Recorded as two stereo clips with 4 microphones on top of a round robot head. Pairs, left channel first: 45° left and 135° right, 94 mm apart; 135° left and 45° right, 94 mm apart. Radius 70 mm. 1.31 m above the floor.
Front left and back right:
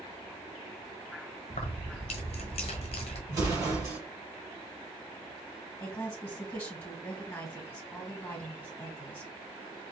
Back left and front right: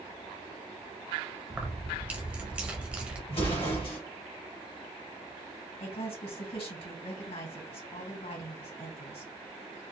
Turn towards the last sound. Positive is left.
turn(degrees=120)